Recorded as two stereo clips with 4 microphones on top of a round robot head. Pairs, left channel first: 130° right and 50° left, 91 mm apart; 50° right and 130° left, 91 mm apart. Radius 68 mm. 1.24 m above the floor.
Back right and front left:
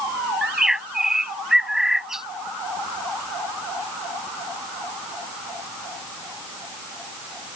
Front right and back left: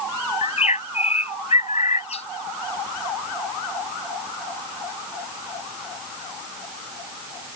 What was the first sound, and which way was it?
A bird, 35° right.